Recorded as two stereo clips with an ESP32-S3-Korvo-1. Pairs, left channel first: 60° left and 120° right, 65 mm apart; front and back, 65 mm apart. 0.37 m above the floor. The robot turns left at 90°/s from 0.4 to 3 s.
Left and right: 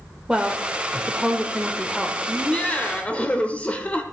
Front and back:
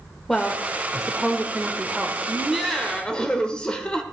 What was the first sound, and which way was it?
A woman speaking, 75° right.